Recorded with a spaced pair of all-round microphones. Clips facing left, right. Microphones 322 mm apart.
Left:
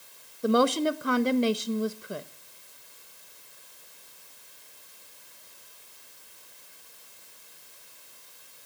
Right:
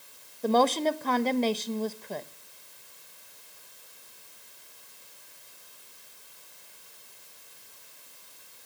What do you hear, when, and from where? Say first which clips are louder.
0.4 s a woman speaking: left 1 dB; 15° left (ahead or behind), 0.9 m